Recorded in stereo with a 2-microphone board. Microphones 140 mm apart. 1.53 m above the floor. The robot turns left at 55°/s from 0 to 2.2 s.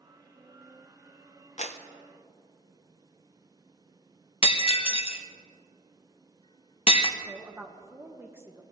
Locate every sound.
1.6 s a clap: 55° left (ahead or behind), 0.7 m; by 1.8 s 50° left (ahead or behind), 0.7 m
4.4 s breaking glass: 45° left (ahead or behind), 0.8 m
7.2 s a woman speaking: 15° right (ahead or behind), 1.4 m